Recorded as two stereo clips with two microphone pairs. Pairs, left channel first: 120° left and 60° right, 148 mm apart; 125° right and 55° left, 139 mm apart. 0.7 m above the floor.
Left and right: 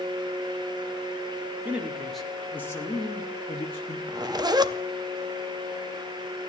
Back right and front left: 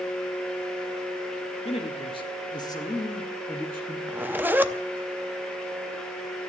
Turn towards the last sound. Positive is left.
turn(degrees=-15)